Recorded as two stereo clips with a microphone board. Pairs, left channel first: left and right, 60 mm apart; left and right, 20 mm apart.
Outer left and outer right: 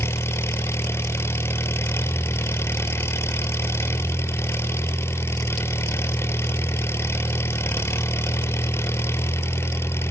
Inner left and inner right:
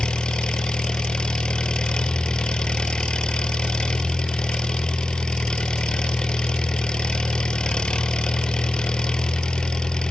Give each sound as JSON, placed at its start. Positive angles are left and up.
{"t": 0.0, "sound": "an engine running", "side_deg": 45, "distance_m": 0.8}